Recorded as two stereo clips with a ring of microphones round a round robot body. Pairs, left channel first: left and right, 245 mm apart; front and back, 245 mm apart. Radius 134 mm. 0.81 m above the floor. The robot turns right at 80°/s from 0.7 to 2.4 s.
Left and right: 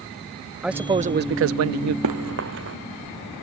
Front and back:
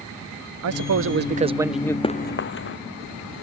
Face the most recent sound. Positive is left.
turn(degrees=-40)